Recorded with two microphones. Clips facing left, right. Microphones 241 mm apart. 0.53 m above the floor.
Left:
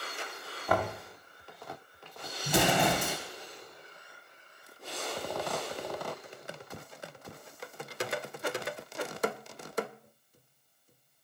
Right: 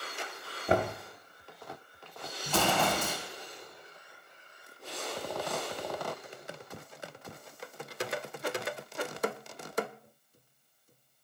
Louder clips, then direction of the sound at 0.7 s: Right 2 dB; 25° right (ahead or behind).